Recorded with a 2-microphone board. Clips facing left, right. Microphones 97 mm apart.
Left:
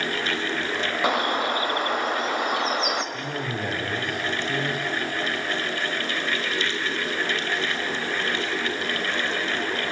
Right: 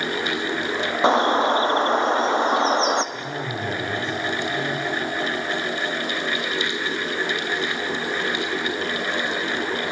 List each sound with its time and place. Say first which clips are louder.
1.0 s a bird: right 7 dB; 30° right (ahead or behind), 1.1 m
3.1 s a man speaking: right 1 dB; 55° left (ahead or behind), 7.5 m